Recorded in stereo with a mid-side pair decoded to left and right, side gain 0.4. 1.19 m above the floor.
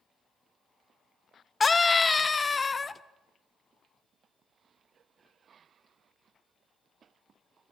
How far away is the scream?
About 0.7 m.